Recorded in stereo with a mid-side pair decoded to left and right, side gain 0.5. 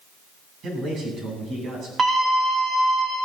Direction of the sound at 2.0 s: 30° right.